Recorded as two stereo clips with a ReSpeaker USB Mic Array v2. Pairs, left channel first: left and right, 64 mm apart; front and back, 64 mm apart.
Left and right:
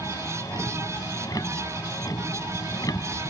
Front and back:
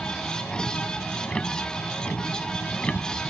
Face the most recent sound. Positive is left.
turn(degrees=70)